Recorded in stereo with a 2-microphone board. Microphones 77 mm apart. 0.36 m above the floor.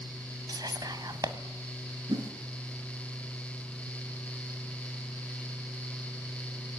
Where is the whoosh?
70° right (ahead or behind), 2.5 m.